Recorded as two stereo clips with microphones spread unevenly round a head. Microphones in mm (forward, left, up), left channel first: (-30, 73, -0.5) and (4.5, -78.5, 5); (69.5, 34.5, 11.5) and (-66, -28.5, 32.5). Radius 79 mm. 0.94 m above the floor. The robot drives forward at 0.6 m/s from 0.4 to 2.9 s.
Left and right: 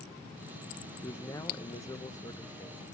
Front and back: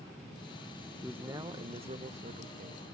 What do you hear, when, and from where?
1.0 s a man speaking: 110° left, 0.6 m; by 2.8 s 170° left, 1.3 m